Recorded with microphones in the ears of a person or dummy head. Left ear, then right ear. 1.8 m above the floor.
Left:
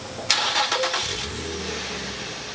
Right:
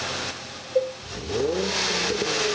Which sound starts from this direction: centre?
A cowbell, at 0.8 s.